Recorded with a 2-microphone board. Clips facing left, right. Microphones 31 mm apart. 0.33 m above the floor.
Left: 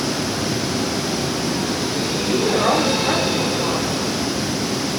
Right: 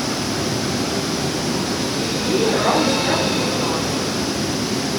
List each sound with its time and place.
2.2 s a woman speaking: 5° right (ahead or behind), 4.5 m